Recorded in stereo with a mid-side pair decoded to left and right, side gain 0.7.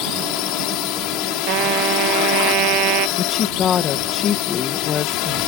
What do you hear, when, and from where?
0.0 s a drone: 65° left
1.5 s a trumpet: 60° right
3.2 s a woman speaking: 40° left